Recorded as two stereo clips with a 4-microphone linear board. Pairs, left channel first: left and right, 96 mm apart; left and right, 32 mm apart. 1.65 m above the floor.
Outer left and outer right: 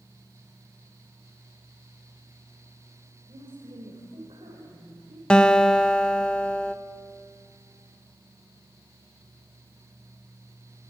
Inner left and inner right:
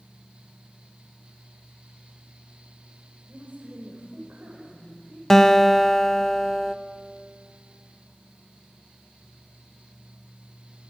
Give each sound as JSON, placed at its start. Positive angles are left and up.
{"t": 3.3, "sound": "a woman speaking", "side_deg": -60, "distance_m": 6.0}
{"t": 5.3, "sound": "a guitar", "side_deg": 10, "distance_m": 1.0}